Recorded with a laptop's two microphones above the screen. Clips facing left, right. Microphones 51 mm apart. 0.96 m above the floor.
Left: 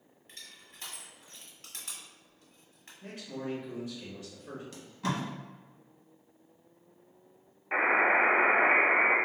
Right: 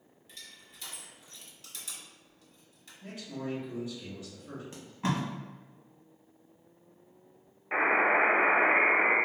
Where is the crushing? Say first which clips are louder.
Even; 50° left (ahead or behind), 1.0 m.